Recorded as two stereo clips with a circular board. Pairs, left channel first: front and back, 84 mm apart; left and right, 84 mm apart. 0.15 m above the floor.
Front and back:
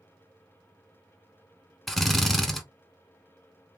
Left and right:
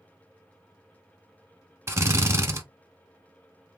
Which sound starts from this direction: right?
A drill, at 1.9 s.